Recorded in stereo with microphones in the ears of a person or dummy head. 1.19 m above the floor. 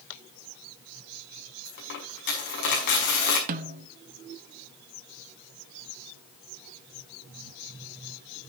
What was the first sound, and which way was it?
A dropped coin, 55° left (ahead or behind).